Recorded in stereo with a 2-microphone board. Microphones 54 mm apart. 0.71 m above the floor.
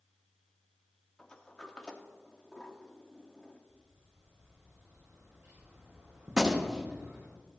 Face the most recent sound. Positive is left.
turn(degrees=-10)  # may be behind; listen again after turning